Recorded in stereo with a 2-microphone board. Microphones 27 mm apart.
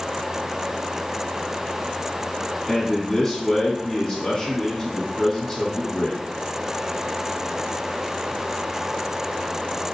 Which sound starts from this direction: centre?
A man speaking, at 2.7 s.